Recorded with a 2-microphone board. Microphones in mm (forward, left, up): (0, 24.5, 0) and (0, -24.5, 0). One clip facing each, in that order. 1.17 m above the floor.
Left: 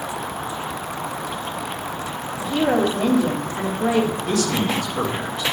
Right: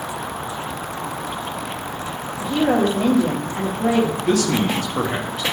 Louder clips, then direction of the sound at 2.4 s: Right 1 dB; 30° right (ahead or behind).